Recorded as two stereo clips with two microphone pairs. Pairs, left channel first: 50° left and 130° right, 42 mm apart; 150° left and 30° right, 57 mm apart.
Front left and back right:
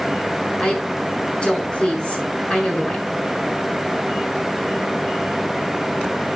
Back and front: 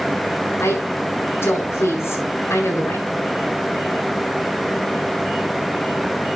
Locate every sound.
0.6 s a woman speaking: 115° left, 7.5 m